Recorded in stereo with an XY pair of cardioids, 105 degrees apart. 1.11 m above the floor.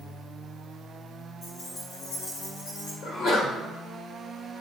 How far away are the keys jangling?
About 4.5 m.